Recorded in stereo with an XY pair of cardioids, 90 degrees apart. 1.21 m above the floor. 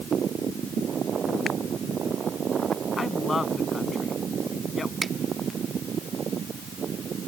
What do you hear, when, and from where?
3.0 s a woman speaking: 40° left
5.0 s a finger snap: 15° right